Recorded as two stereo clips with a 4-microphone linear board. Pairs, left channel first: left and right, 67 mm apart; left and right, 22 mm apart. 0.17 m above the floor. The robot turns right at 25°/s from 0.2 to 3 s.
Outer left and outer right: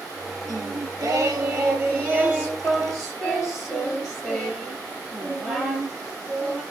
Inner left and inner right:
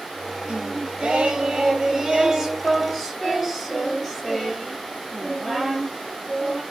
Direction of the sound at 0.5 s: 70° right.